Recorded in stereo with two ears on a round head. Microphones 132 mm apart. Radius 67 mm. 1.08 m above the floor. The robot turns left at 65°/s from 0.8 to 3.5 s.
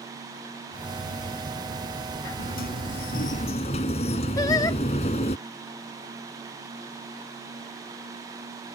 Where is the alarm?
No alarm in this recording.